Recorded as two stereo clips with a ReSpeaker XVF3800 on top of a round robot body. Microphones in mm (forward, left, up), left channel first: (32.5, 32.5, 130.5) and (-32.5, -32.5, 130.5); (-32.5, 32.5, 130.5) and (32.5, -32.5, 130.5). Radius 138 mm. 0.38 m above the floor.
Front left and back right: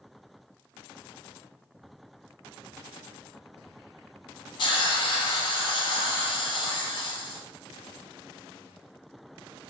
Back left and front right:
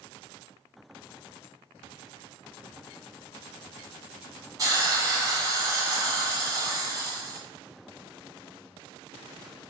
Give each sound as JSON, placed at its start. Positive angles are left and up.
{"t": 4.6, "sound": "a hiss", "azimuth_deg": 10, "distance_m": 0.6}